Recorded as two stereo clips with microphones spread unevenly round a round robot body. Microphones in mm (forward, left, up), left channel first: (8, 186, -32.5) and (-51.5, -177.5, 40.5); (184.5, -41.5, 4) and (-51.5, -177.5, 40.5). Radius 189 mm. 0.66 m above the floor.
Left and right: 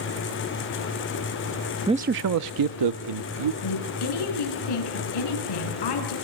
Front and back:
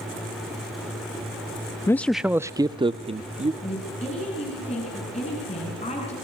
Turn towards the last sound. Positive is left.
turn(degrees=105)